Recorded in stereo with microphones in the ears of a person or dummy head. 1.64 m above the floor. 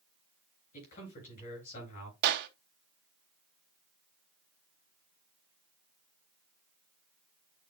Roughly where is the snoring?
I don't hear snoring.